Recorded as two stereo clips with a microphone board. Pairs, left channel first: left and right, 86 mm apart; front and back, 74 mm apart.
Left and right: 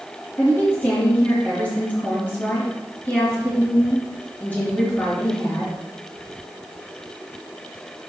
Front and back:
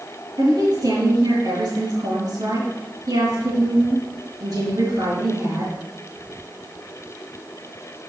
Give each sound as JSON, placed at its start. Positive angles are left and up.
{"t": 0.4, "sound": "a woman speaking", "azimuth_deg": 155, "distance_m": 3.5}